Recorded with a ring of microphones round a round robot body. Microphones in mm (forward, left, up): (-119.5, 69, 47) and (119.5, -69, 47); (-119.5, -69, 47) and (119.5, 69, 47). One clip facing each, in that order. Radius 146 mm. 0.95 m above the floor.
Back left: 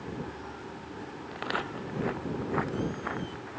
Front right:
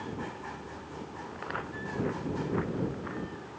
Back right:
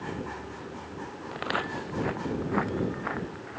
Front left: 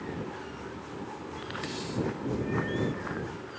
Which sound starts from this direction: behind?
Footsteps, at 1.3 s.